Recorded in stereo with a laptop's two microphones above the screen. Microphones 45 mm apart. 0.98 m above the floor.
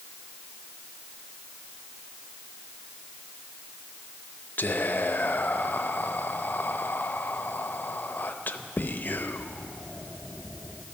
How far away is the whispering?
About 0.6 m.